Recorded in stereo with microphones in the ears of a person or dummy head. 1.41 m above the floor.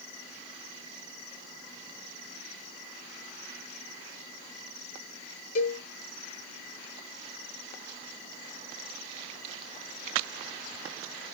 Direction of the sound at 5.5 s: 50° left (ahead or behind).